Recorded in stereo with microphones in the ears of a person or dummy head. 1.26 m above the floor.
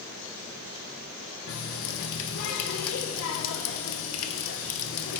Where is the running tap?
70° left (ahead or behind), 0.6 m.